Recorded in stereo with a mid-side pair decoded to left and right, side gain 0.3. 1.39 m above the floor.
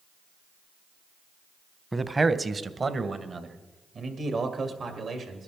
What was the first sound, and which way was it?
A man speaking, 25° right.